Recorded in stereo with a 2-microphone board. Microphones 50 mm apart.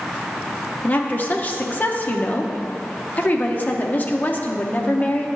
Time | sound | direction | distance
0.8 | a woman speaking | 35° left (ahead or behind) | 0.8 m